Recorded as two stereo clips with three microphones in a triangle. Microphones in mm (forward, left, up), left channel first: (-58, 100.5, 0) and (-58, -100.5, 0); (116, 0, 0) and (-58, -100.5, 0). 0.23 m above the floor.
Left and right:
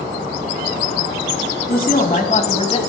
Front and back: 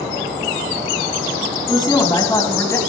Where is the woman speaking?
90° left, 2 m.